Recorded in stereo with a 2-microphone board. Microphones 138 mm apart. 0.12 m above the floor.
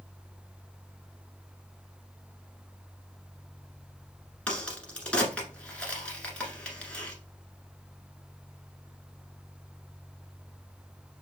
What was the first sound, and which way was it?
A crack, 10° left (ahead or behind).